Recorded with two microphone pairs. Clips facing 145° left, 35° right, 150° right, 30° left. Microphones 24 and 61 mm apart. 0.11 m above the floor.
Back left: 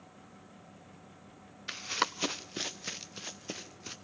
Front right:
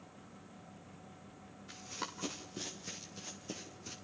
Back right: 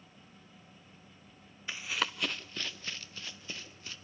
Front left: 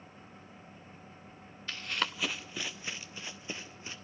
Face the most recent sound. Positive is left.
turn(degrees=100)